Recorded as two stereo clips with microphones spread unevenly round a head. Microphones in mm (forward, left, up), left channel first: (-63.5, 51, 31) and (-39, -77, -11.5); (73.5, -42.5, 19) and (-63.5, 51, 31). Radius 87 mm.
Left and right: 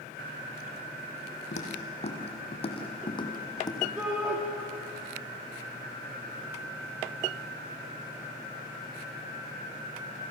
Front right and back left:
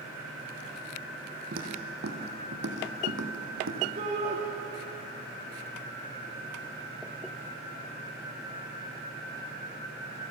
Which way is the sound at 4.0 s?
160° right.